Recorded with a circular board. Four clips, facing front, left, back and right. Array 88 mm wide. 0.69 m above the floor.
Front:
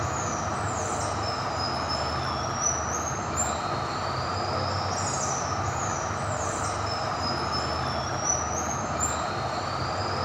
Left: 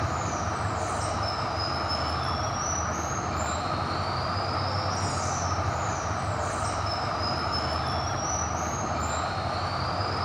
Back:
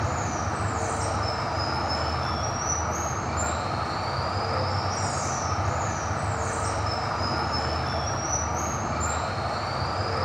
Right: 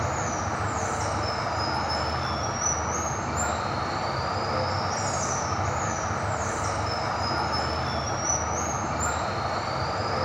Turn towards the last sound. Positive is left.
turn(degrees=-110)